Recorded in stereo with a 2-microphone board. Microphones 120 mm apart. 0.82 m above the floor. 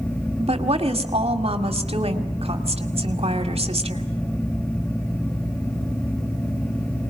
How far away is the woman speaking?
About 2 m.